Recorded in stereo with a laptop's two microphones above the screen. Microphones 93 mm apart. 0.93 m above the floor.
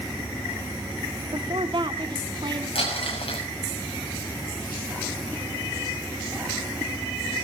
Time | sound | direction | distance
1.3 | a woman speaking | 55° right (ahead or behind) | 1.4 m
2.8 | crumpling | 85° left | 6.5 m